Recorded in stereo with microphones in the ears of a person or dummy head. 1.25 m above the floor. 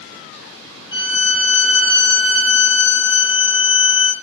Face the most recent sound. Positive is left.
turn(degrees=60)  # may be behind; listen again after turning